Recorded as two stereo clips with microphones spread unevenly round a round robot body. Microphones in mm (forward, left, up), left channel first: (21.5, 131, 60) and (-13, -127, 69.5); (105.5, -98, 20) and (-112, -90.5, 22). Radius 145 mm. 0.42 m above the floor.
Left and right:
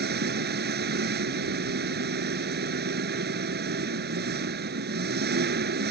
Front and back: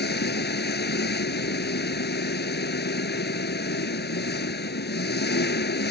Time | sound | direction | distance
0.0 | an engine running | 45° right | ?